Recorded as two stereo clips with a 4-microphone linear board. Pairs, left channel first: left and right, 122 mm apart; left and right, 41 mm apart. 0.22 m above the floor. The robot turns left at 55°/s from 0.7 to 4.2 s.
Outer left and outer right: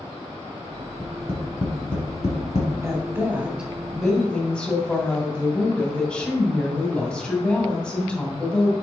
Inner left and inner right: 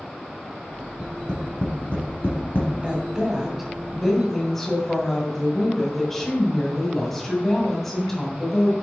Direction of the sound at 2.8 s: 25° right (ahead or behind).